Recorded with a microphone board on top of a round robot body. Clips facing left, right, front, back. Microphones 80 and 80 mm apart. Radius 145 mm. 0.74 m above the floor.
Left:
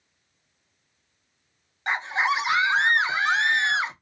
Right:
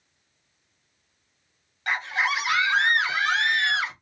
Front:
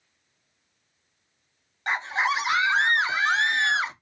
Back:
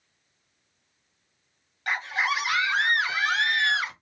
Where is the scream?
40° left, 0.8 m.